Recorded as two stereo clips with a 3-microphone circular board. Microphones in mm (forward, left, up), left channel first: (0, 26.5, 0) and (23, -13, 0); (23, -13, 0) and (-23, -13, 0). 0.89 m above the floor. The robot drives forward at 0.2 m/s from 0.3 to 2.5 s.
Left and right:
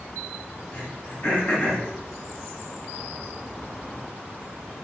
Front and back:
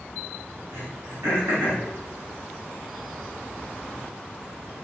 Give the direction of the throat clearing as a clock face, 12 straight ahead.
7 o'clock.